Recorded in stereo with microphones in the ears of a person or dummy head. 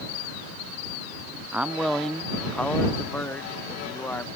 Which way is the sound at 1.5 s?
5° right (ahead or behind).